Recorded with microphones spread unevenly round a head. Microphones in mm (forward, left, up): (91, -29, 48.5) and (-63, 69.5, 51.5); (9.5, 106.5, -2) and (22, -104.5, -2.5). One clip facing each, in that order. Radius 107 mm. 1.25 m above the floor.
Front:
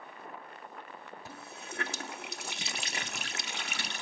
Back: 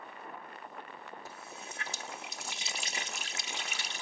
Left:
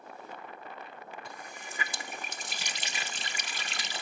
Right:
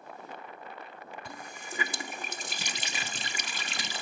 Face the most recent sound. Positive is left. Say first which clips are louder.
# front 1 dB, right 2 dB
turn(degrees=-75)